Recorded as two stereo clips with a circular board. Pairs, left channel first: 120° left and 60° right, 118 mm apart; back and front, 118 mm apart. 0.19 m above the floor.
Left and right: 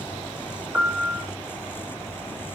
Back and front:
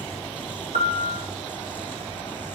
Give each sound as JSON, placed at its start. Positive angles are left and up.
{"t": 0.7, "sound": "a piano", "azimuth_deg": 15, "distance_m": 1.7}